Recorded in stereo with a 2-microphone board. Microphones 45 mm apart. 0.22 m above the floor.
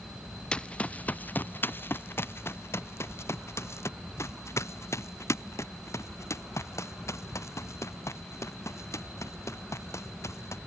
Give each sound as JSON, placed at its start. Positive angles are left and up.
{"t": 0.5, "sound": "running footsteps", "side_deg": 20}